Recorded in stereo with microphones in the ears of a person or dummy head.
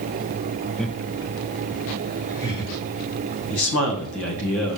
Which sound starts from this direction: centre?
Laughter, at 0.8 s.